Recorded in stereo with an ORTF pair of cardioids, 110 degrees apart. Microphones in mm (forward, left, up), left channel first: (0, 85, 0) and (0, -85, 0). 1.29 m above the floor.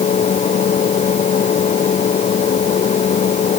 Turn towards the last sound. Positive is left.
turn(degrees=40)